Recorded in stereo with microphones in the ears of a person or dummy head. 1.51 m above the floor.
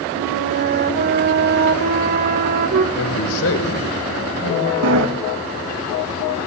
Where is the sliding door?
65° right (ahead or behind), 2.5 m.